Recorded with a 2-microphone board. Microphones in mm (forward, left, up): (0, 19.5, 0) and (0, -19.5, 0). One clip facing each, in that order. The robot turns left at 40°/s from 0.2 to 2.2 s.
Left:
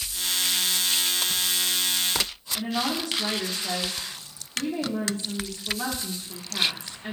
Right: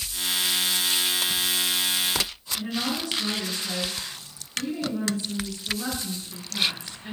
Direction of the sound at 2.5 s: 55° left (ahead or behind).